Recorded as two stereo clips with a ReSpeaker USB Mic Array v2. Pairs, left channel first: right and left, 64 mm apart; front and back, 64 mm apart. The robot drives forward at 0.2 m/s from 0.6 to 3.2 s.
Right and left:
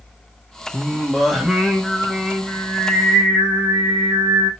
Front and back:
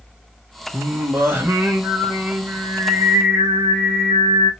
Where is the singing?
170° left, 0.8 m; by 4.5 s 175° left, 1.1 m.